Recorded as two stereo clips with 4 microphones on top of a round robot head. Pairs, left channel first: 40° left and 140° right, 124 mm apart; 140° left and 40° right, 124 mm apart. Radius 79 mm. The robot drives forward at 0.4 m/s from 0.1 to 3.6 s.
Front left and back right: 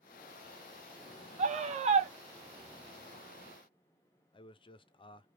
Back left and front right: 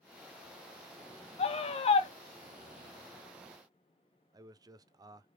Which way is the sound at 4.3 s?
10° left.